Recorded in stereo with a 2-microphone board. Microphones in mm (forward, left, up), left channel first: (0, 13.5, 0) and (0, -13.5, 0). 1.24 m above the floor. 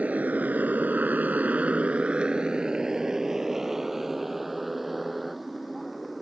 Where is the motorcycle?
55° right (ahead or behind); by 6.2 s centre (ahead or behind).